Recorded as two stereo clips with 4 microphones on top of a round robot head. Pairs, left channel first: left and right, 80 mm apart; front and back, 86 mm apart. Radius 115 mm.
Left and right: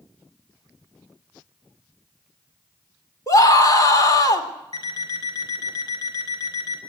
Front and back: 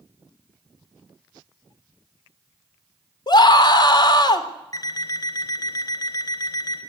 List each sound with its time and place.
3.3 s a scream: 35° left, 4 m
4.7 s an alarm clock: 45° left, 4 m